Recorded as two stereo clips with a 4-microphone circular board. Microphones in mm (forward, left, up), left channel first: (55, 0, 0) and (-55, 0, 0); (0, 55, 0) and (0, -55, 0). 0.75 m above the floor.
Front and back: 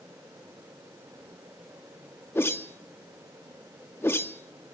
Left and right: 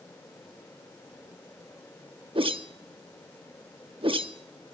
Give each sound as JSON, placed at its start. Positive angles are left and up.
{"t": 2.4, "sound": "a whoosh", "azimuth_deg": -65, "distance_m": 0.8}